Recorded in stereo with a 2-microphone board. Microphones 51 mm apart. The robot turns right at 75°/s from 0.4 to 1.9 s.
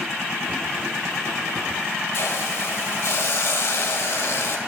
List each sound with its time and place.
2.1 s a hiss: 65° left (ahead or behind), 2.5 m